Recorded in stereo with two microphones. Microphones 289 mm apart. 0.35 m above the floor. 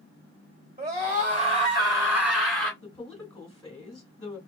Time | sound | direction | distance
0.8 | a scream | 35° right (ahead or behind) | 1.7 m
2.8 | a woman speaking | 15° left (ahead or behind) | 1.4 m